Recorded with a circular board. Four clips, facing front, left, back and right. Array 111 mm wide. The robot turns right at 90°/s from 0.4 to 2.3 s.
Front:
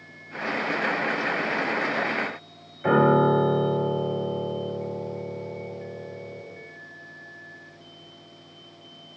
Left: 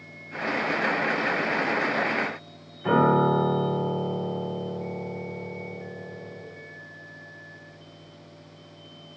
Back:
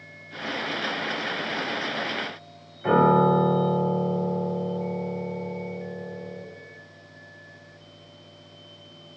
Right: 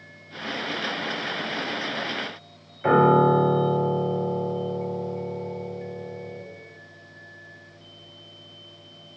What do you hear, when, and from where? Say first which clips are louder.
2.8 s a piano: right 3 dB, even; 70° right, 1.3 m